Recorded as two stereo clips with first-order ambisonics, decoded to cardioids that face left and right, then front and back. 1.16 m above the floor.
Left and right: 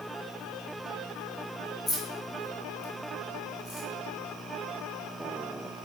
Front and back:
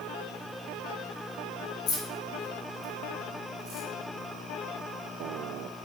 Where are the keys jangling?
35° left, 0.9 m; by 3.9 s 125° left, 1.2 m.